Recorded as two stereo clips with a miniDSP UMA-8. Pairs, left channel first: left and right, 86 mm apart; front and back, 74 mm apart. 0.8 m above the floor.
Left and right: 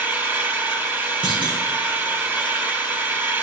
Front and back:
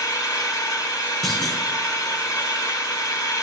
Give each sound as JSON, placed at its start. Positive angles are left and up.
{"t": 0.0, "sound": "an engine running", "azimuth_deg": -30, "distance_m": 3.0}
{"t": 1.2, "sound": "a clunk", "azimuth_deg": -90, "distance_m": 5.5}